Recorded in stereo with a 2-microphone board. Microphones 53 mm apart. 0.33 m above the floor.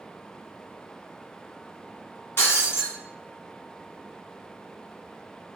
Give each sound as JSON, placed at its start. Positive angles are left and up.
{"t": 2.4, "sound": "breaking glass", "side_deg": 50, "distance_m": 2.0}